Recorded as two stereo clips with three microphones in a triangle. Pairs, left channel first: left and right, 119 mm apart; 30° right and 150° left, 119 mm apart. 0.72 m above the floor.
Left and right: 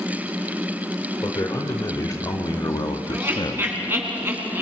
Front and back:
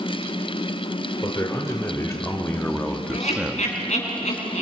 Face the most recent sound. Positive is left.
turn(degrees=-20)